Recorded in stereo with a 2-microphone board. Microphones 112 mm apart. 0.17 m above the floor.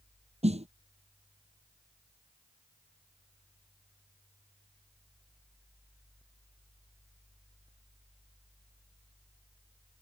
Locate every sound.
0.4 s a snare drum: 75° right (ahead or behind)